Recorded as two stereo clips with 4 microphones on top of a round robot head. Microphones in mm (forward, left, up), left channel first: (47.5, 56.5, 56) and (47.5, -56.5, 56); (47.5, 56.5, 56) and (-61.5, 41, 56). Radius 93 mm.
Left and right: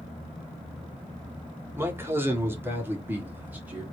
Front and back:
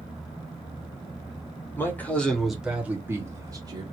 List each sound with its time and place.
1.8 s a man speaking: 40° right, 1.4 m; by 3.8 s 160° right, 1.5 m